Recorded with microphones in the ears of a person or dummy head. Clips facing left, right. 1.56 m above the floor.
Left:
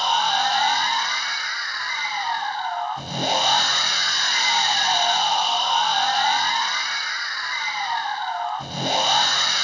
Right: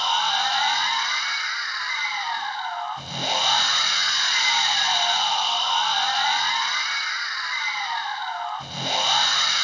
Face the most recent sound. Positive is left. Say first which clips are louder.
# left 3 dB
turn(degrees=45)  # may be behind; listen again after turning